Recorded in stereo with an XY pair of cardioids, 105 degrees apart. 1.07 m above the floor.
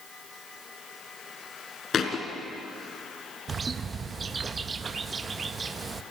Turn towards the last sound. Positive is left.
turn(degrees=-35)